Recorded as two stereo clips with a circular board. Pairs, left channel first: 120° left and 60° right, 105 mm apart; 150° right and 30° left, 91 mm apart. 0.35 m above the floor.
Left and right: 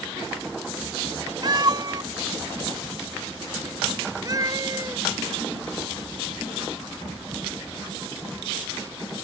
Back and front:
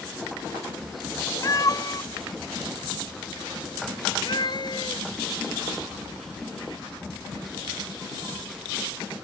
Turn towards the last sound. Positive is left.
turn(degrees=-115)